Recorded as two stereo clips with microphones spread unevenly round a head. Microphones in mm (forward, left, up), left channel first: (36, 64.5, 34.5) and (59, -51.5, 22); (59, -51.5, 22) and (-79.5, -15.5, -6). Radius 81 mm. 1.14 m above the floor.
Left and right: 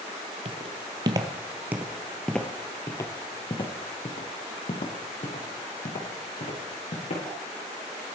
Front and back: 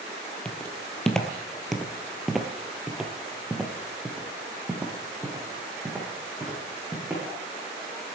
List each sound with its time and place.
0.5 s footsteps: 75° right, 1.4 m; by 7.2 s 85° left, 3.5 m